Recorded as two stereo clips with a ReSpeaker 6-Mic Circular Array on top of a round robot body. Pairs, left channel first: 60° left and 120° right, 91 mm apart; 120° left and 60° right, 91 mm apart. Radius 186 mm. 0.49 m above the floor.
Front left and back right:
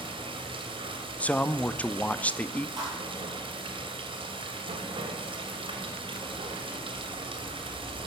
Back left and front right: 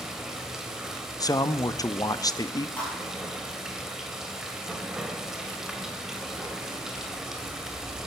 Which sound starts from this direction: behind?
A thud, at 2.8 s.